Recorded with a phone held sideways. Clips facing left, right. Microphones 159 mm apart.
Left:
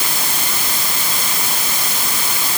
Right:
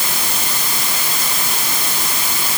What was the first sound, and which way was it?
Only background noise.